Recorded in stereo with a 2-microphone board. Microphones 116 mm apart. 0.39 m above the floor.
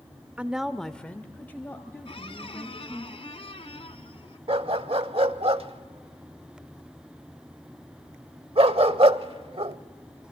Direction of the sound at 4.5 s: 55° right (ahead or behind).